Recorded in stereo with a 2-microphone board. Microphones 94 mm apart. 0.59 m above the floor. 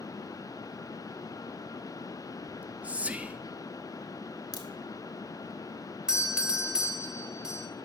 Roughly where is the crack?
Left.